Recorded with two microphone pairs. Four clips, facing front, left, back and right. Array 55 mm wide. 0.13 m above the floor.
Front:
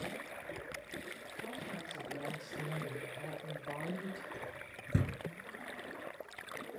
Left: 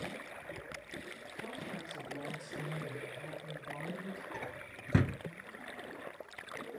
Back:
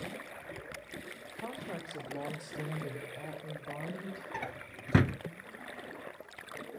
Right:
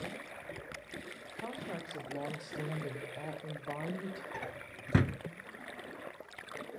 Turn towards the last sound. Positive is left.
turn(degrees=-165)